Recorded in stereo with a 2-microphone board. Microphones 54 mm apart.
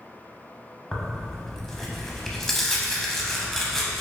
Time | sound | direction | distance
0.9 | tearing paper | 10° left (ahead or behind) | 0.5 m